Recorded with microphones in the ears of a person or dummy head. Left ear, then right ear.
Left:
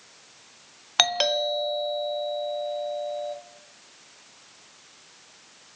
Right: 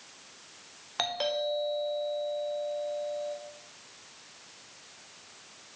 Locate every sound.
1.0 s a doorbell: 45° left (ahead or behind), 0.6 m